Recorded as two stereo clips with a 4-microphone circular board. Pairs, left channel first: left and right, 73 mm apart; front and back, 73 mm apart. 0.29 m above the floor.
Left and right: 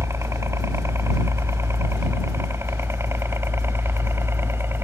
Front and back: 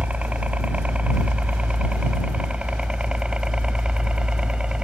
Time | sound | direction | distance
0.0 | a helicopter | 115° right | ?